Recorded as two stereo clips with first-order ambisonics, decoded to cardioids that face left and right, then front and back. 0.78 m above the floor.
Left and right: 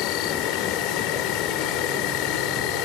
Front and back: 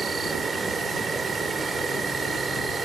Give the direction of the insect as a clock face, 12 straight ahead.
8 o'clock.